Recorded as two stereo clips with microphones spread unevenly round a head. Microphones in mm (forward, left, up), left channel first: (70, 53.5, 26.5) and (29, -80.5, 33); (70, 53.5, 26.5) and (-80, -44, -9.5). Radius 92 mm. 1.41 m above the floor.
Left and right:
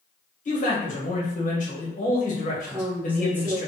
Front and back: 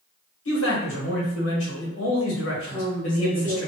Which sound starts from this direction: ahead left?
A man speaking, at 0.5 s.